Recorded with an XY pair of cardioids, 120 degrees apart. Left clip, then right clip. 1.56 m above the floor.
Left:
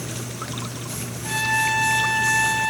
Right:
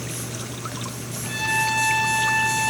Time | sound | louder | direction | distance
1.2 | a trumpet | left 1 dB | 20° left | 5.5 m